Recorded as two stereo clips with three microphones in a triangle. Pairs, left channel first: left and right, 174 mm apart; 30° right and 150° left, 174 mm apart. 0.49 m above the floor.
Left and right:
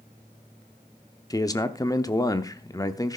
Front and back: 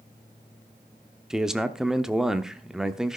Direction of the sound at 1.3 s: 65° left.